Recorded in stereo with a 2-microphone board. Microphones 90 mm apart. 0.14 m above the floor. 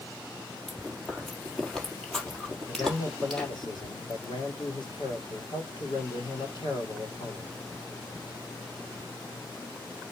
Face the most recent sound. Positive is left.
turn(degrees=60)  # may be behind; listen again after turning